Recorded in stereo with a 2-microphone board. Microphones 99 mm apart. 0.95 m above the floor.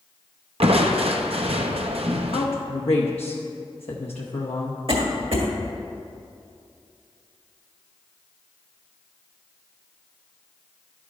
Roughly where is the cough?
Right.